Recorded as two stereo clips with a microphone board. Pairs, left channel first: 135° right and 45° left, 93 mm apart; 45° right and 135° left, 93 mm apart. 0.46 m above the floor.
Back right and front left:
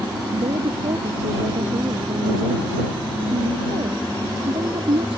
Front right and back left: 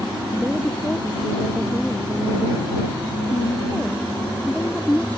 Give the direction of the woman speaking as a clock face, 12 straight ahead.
11 o'clock.